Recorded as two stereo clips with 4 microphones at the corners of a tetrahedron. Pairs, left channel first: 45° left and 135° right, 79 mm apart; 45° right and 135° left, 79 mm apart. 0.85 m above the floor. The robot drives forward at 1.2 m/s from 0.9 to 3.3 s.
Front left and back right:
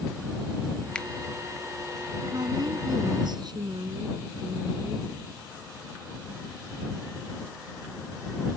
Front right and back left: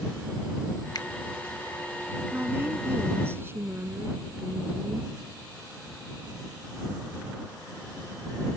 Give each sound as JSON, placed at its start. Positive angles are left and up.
{"t": 0.9, "sound": "a finger snap", "azimuth_deg": -30}
{"t": 2.3, "sound": "a woman speaking", "azimuth_deg": -160}